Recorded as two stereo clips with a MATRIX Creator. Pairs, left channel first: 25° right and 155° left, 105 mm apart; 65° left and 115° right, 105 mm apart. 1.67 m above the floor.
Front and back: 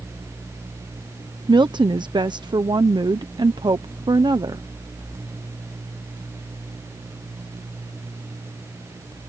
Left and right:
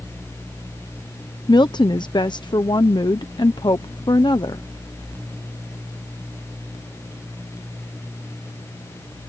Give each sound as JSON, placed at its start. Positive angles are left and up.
{"t": 1.5, "sound": "a woman speaking", "azimuth_deg": 115}